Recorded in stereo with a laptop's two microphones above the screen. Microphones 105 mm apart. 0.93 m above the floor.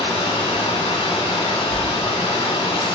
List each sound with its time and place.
0.0 s running water: 65° left (ahead or behind), 1.6 m
1.7 s a dropped coin: centre (ahead or behind), 1.5 m